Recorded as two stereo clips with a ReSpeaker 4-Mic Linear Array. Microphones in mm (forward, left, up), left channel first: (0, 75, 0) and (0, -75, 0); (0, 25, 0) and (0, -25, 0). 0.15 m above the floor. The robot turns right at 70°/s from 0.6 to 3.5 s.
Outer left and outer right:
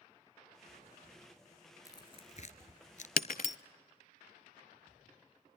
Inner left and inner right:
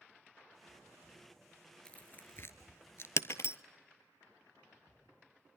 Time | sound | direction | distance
1.9 | tearing paper | 20° left (ahead or behind) | 1.2 m
3.2 | breaking glass | 80° left | 0.6 m